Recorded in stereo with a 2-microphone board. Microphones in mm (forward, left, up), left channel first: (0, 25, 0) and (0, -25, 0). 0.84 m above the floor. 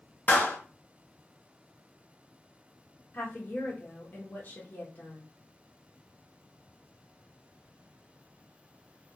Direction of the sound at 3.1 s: 40° left (ahead or behind).